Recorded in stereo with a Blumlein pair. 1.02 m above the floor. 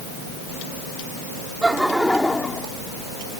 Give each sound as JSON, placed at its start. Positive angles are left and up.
{"t": 1.6, "sound": "laughter", "azimuth_deg": -10}